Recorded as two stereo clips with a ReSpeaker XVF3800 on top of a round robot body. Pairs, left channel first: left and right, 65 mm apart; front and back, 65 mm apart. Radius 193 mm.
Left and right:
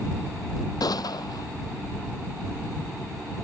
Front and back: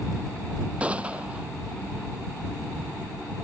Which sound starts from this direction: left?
A gunshot, at 0.8 s.